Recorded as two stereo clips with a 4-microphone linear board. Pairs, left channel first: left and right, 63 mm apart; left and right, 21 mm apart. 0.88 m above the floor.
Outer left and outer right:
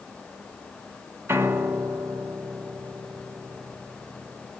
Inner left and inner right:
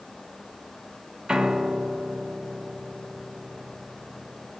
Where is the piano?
40° right (ahead or behind), 0.7 m.